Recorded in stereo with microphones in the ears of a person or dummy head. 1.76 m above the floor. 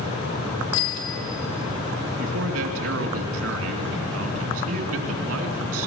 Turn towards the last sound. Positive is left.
turn(degrees=-80)